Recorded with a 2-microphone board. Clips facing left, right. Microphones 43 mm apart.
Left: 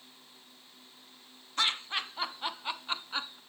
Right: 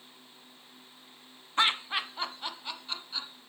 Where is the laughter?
30° right (ahead or behind), 1.4 m; by 3.4 s 45° left (ahead or behind), 2 m.